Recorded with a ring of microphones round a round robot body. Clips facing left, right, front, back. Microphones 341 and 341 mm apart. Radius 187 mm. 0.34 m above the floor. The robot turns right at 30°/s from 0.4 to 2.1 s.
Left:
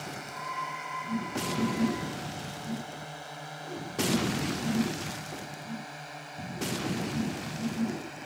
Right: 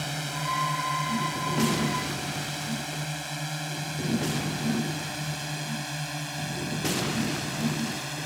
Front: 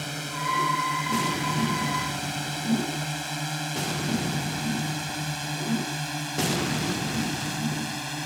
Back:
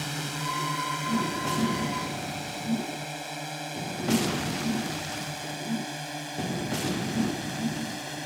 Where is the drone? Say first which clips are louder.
Right 6 dB, even; 100° right; by 8.3 s 65° right.